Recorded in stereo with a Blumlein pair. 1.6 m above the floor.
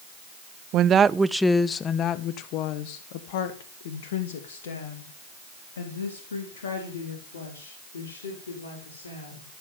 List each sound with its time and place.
0.7 s a woman speaking: 35° right, 0.7 m; by 9.5 s 65° left, 5.5 m